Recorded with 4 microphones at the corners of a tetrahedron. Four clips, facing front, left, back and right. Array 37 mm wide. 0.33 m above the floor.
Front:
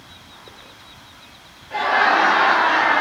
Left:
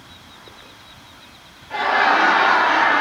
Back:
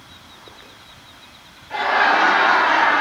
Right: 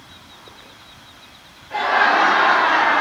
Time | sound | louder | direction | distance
1.7 | laughter | even, even | 145° left | 1.8 m